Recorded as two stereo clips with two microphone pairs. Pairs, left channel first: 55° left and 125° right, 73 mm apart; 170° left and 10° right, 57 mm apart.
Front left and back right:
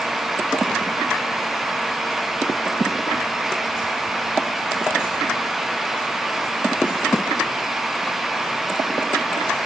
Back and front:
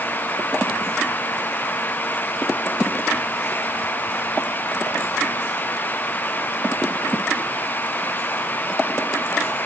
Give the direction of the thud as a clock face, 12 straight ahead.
No thud in this recording.